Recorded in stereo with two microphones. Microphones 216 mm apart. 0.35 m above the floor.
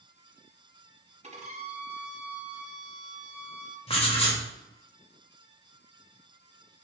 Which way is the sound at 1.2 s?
30° right (ahead or behind).